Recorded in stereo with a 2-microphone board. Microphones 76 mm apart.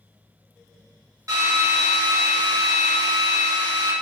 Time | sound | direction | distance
1.3 | a drill | 50° right (ahead or behind) | 1.1 m